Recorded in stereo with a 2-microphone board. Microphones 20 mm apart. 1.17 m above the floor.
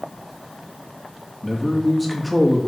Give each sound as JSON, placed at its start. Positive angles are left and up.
{"t": 1.4, "sound": "a man speaking", "side_deg": 5, "distance_m": 2.0}